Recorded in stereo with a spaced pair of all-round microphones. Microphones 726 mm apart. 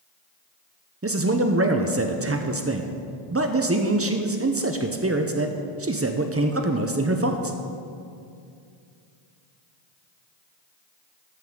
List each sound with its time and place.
1.0 s a man speaking: 20° right (ahead or behind), 0.6 m